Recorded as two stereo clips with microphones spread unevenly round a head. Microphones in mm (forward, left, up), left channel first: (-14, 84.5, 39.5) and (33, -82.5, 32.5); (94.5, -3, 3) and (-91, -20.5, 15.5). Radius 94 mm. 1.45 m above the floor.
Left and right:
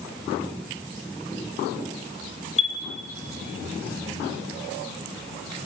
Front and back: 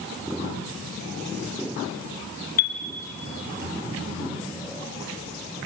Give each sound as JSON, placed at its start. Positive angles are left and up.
{"t": 2.6, "sound": "a chime", "azimuth_deg": 50, "distance_m": 3.0}